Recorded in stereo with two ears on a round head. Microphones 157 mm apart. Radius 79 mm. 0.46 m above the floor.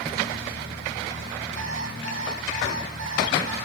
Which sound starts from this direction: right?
An alarm clock, at 1.6 s.